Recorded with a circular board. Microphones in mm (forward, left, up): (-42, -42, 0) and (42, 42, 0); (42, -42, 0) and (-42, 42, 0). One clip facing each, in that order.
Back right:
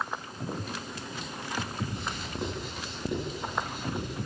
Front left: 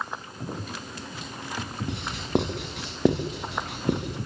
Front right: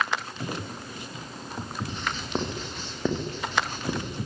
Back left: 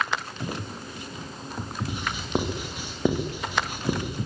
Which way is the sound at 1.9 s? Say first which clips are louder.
Front left 9 dB, back left 3 dB; 55° left.